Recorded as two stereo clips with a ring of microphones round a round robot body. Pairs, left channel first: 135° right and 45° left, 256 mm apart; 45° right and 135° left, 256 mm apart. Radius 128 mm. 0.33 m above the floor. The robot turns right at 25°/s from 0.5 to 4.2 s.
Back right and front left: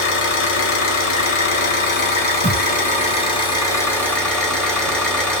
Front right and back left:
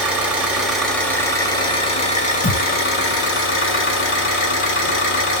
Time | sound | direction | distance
0.0 | an engine running | 140° right | 1.0 m
2.4 | a thud | 10° right | 1.0 m